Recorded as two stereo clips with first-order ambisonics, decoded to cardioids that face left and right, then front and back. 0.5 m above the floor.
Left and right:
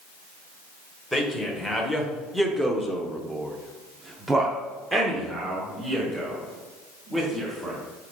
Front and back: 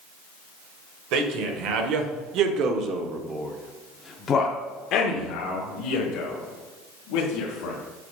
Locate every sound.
1.1 s a man speaking: straight behind, 1.7 m; by 7.8 s 10° right, 2.5 m